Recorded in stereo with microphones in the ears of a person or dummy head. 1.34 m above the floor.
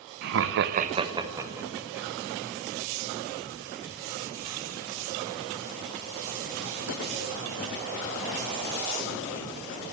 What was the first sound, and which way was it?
Laughter, 50° right (ahead or behind).